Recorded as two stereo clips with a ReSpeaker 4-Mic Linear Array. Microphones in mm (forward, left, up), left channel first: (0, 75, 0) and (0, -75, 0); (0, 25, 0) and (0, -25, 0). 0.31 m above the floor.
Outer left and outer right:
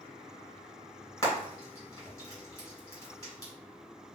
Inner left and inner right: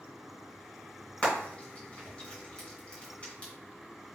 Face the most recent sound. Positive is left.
turn(degrees=25)  # may be behind; listen again after turning